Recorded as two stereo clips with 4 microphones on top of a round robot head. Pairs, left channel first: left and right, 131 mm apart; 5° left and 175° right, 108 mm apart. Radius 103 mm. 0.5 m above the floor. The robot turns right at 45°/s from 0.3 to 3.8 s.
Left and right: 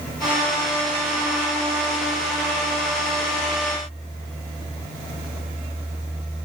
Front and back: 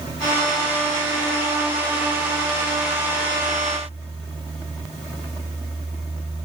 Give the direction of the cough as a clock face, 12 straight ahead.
I don't hear a cough.